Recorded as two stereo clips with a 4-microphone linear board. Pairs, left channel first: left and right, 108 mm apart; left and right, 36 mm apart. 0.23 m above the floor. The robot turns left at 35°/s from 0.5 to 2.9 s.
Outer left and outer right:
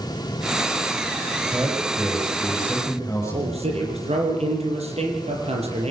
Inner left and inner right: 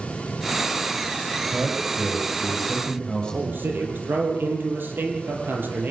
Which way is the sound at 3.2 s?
75° right (ahead or behind).